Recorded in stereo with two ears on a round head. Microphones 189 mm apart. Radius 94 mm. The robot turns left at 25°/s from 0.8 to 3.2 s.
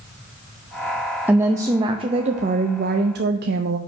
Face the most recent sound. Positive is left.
turn(degrees=-60)